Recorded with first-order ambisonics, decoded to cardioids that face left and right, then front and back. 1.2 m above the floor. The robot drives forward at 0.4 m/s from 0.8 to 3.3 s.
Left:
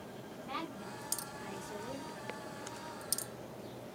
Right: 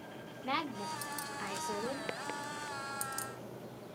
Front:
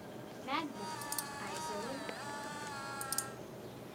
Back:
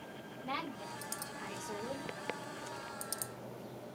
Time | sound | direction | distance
0.4 | a woman speaking | 70° right | 0.9 m